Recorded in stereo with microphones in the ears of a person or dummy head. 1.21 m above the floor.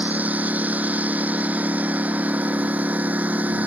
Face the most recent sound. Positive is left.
turn(degrees=-5)  # may be behind; listen again after turning